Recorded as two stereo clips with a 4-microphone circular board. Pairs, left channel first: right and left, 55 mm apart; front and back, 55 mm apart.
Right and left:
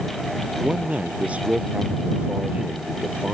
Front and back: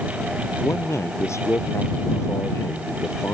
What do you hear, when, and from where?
0.6 s a man speaking: 25° left